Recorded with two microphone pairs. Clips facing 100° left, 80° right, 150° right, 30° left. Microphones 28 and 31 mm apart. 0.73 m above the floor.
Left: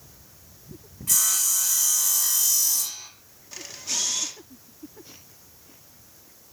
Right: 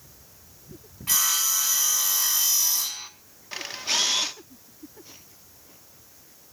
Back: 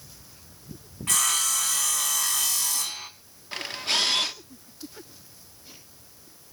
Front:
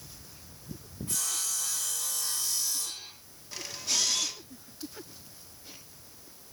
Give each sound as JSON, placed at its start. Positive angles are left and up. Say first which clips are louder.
{"t": 1.1, "sound": "sawing", "louder": "right 1 dB, back 10 dB", "azimuth_deg": -140, "distance_m": 3.5}
{"t": 3.5, "sound": "a camera shutter", "louder": "right 5 dB, back 6 dB", "azimuth_deg": -120, "distance_m": 1.7}